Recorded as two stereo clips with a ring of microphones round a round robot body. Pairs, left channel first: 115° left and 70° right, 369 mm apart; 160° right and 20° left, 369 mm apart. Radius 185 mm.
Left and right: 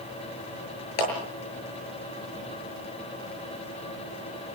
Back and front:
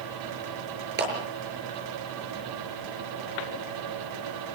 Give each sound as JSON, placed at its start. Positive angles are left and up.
{"t": 1.0, "sound": "a clap", "azimuth_deg": 85, "distance_m": 6.5}